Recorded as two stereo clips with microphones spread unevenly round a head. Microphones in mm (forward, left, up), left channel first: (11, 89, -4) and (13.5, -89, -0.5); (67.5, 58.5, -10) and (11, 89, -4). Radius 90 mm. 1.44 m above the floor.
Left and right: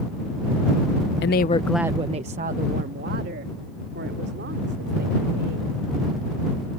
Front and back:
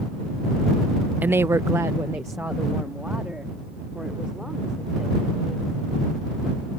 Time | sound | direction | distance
1.2 | a woman speaking | 95° left | ?